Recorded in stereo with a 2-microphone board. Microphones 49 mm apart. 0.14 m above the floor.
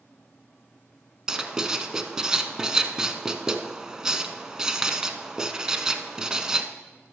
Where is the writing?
15° right (ahead or behind), 0.6 m.